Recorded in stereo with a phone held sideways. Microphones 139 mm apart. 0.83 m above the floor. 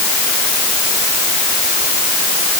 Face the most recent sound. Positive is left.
No sound to turn to.